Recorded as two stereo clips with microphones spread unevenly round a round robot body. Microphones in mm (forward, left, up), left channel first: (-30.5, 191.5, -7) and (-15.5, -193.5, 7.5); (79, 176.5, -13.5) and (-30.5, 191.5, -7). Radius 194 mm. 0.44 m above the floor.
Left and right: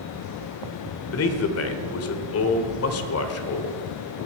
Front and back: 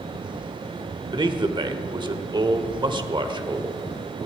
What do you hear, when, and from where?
1.1 s a man speaking: 135° left, 1.6 m